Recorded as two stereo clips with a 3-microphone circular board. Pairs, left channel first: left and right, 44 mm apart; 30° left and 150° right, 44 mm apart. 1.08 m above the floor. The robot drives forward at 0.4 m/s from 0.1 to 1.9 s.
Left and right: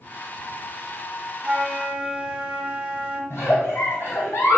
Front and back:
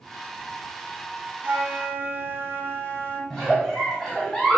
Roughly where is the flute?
Behind right.